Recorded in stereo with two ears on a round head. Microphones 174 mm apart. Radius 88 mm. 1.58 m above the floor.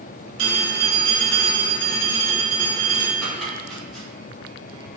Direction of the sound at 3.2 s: Centre (ahead or behind).